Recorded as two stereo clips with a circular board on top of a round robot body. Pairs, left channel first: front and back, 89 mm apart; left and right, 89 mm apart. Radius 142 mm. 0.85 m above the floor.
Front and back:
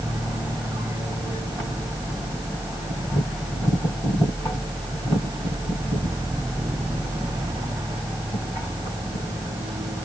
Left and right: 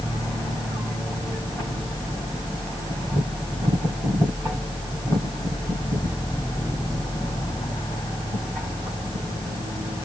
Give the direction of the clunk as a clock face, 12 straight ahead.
No clunk in this recording.